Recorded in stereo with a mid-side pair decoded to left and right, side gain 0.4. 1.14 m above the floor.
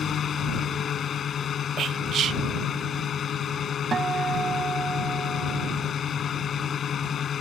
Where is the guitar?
40° right.